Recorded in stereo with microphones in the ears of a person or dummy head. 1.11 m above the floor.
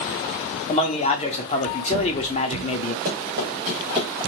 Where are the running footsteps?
50° right (ahead or behind), 1.7 m; by 4.1 s 30° right (ahead or behind), 1.5 m.